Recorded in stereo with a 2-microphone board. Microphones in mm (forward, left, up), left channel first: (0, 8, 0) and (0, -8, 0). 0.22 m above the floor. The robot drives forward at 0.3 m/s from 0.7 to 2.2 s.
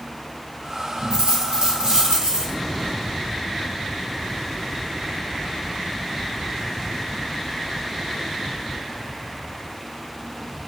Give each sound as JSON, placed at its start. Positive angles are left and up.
{"t": 1.1, "sound": "a dropped coin", "side_deg": -70, "distance_m": 1.5}